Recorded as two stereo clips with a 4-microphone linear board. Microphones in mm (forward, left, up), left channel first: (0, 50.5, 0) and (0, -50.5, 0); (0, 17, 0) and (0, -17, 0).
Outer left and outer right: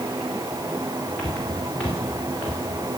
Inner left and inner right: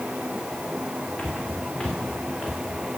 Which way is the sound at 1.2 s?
10° left (ahead or behind).